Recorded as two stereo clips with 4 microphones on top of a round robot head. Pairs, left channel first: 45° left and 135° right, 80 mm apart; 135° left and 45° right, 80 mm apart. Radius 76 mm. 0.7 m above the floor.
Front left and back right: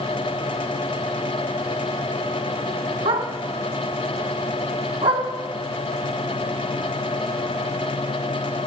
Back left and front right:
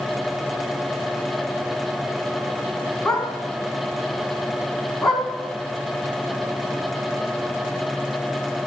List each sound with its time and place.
3.0 s a dog barking: 135° right, 1.7 m